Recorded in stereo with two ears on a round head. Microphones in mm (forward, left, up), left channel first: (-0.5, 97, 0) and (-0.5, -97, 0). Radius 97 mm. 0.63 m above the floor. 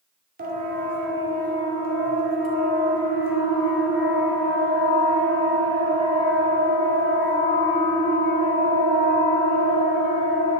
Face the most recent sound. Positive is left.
turn(degrees=-45)  # may be behind; listen again after turning